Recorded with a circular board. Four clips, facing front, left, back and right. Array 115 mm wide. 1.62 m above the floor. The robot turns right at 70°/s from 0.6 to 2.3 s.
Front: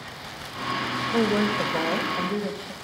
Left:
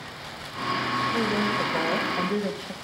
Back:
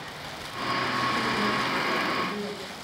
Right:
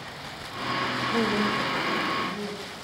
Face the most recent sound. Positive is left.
turn(degrees=65)